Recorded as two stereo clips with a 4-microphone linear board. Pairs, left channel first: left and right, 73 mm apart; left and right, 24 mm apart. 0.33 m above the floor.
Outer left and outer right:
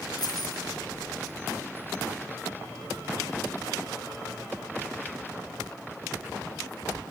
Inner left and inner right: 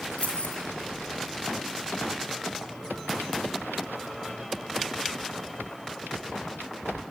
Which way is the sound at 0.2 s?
65° left (ahead or behind).